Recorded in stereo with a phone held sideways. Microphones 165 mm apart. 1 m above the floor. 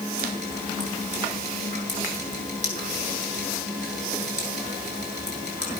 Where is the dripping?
45° right (ahead or behind), 8.5 m.